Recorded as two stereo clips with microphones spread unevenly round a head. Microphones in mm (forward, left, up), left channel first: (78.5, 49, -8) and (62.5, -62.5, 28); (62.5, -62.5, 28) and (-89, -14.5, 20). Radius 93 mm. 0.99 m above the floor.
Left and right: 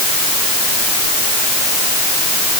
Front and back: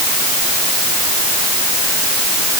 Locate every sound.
Only background noise.